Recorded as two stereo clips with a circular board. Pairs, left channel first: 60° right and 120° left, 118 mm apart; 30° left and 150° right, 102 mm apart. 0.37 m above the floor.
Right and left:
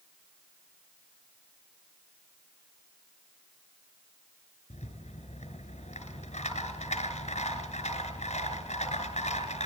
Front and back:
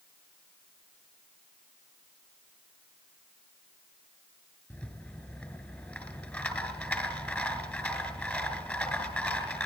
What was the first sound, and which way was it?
A rattle, 45° right.